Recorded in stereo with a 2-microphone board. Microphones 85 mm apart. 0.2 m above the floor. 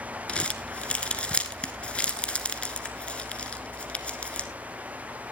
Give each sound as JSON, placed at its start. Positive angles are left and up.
{"t": 0.3, "sound": "crumpling", "side_deg": 15, "distance_m": 1.1}